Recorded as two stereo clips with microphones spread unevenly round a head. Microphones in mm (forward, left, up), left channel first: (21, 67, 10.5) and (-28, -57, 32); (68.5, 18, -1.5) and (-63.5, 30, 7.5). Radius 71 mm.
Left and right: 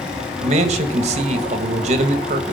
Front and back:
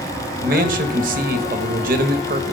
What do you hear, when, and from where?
0.4 s a man speaking: 155° right, 1.4 m